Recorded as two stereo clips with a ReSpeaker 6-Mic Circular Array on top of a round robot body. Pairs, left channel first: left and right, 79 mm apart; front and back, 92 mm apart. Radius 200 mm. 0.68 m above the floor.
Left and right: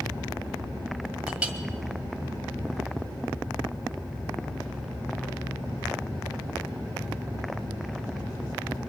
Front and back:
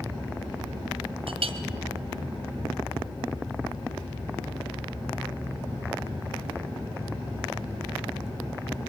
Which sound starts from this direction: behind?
A clink, at 1.3 s.